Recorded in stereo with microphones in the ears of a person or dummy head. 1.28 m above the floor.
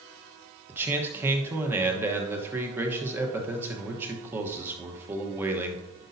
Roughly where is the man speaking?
Centre.